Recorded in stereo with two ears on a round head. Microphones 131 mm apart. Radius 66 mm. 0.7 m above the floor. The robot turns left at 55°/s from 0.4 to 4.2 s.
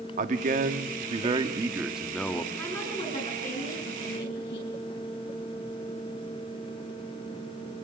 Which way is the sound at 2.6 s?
170° left.